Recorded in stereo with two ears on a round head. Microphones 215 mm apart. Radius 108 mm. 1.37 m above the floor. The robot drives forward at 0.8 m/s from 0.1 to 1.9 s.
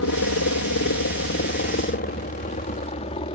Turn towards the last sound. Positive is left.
turn(degrees=20)  # may be behind; listen again after turning